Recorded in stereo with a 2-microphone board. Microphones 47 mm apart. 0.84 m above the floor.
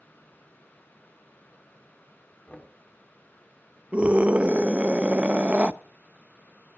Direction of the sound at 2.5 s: 30° left (ahead or behind).